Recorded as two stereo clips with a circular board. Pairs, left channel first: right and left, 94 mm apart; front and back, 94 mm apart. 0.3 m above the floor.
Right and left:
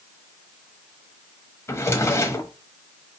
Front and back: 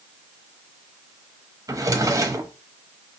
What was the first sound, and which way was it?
A drawer, 140° right.